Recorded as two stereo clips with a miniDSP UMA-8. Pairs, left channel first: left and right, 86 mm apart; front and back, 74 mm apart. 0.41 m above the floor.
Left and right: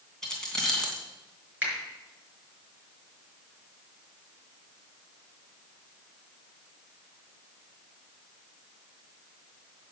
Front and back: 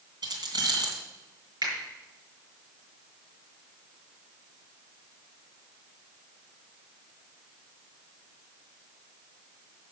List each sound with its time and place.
0.2 s keys jangling: 170° left, 3 m
1.6 s a finger snap: 160° right, 5 m